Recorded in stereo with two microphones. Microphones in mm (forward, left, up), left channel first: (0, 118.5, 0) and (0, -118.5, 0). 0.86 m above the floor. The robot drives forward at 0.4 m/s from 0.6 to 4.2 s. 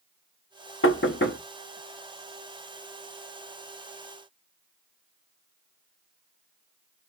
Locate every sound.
0.8 s knocking: 60° left (ahead or behind), 0.9 m; by 1.4 s 50° left (ahead or behind), 1.0 m